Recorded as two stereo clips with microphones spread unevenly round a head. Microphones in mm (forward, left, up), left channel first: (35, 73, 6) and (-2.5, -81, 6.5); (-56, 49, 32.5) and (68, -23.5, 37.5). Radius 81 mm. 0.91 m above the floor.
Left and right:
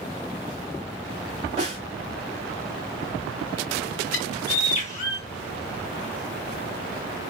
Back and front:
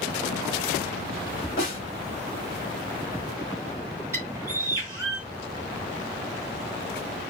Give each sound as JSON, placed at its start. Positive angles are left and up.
{"t": 1.6, "sound": "a snare drum", "azimuth_deg": -160, "distance_m": 1.8}
{"t": 4.1, "sound": "a bird", "azimuth_deg": 40, "distance_m": 1.3}